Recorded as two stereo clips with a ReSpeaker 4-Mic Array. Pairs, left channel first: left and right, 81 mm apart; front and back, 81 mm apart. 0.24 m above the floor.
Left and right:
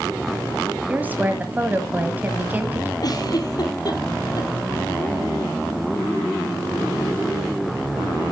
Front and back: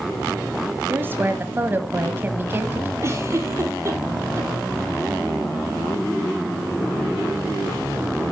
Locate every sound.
0.9 s a woman speaking: 140° right, 1.4 m
3.0 s a giggle: 125° left, 2.5 m